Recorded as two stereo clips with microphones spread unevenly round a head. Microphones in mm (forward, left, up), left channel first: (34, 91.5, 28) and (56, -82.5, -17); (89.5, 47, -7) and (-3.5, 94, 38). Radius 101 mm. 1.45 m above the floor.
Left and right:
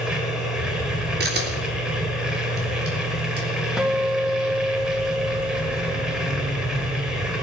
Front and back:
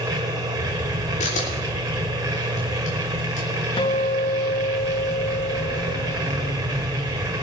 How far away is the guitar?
About 0.8 m.